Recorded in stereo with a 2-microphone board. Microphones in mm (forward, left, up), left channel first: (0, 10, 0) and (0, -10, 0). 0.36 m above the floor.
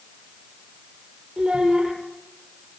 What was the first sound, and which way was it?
A child speaking, 40° right (ahead or behind).